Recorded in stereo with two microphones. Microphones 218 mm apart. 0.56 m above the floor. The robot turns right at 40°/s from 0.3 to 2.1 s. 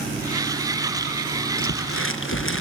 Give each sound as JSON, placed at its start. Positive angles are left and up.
{"t": 1.6, "sound": "crumpling", "side_deg": 85, "distance_m": 4.0}